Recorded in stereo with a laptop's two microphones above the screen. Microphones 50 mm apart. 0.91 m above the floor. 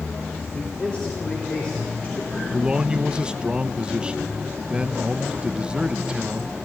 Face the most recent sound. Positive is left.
turn(degrees=-20)  # may be behind; listen again after turning